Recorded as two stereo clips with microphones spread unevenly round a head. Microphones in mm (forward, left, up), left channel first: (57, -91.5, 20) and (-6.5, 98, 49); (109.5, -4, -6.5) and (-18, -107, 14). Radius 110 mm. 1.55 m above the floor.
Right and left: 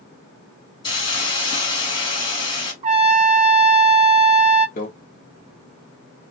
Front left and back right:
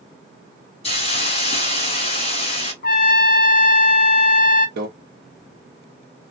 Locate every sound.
0.8 s a hiss: straight ahead, 1.6 m
2.8 s a trumpet: 65° left, 0.5 m
4.8 s a microwave: 125° right, 0.9 m